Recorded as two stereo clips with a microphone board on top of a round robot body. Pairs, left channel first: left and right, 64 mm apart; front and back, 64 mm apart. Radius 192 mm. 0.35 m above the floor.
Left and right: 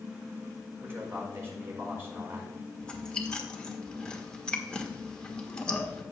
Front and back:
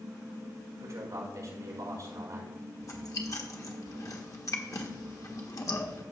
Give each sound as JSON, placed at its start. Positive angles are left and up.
{"t": 0.8, "sound": "a man speaking", "azimuth_deg": -145, "distance_m": 4.5}
{"t": 2.8, "sound": "chewing", "azimuth_deg": 15, "distance_m": 1.6}